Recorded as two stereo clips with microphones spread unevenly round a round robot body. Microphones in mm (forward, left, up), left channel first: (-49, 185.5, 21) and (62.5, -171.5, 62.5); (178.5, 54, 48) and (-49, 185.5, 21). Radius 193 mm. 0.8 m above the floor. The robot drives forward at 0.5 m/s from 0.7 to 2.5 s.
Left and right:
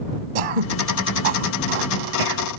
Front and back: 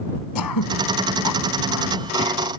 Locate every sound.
0.3 s throat clearing: 70° right; by 2.4 s 90° right